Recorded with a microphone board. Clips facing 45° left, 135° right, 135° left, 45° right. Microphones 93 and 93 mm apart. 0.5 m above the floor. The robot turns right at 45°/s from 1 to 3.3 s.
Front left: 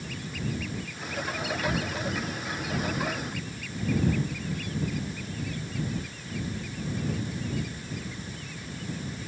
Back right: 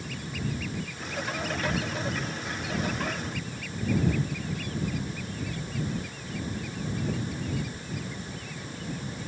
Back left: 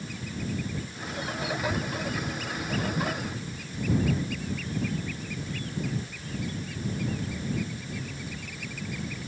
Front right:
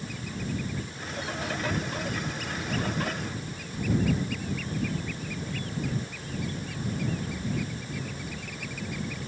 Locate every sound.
Only background noise.